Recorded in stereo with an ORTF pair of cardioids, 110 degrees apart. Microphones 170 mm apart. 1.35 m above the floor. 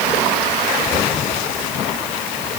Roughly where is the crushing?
No crushing in this recording.